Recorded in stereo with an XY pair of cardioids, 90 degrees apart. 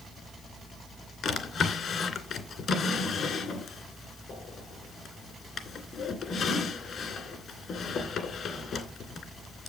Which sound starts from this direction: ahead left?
A drawer, at 1.2 s.